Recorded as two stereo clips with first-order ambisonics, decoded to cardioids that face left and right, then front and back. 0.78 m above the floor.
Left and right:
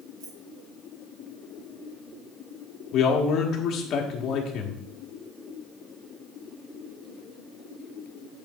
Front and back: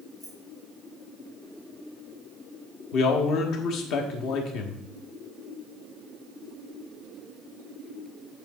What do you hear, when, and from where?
0.2 s keys jangling: 90° right, 2.5 m
2.9 s a man speaking: 40° left, 1.3 m